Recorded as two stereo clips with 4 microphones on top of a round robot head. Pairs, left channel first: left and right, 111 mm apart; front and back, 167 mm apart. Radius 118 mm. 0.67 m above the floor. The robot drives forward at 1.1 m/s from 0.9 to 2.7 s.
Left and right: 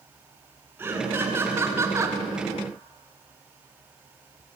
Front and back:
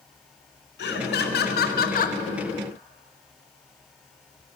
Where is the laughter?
15° right, 2.5 m; by 2.2 s 30° right, 1.5 m.